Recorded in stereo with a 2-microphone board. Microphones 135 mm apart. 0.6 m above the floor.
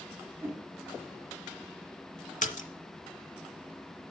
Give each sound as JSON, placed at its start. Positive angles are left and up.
{"t": 0.4, "sound": "a whoosh", "side_deg": -20, "distance_m": 1.2}
{"t": 2.4, "sound": "a splash", "side_deg": 65, "distance_m": 0.7}